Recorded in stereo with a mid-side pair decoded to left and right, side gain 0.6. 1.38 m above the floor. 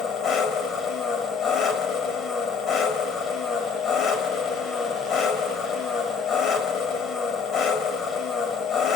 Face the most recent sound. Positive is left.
turn(degrees=55)